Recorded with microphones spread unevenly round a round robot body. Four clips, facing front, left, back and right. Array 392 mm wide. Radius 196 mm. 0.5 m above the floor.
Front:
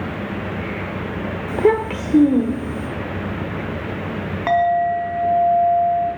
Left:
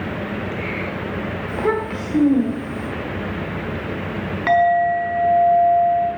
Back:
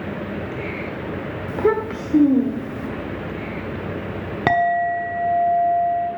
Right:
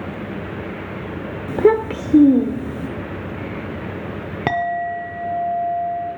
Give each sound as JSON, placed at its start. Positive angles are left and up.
{"t": 1.5, "sound": "a child speaking", "azimuth_deg": -75, "distance_m": 1.1}
{"t": 4.5, "sound": "a clink", "azimuth_deg": -130, "distance_m": 0.9}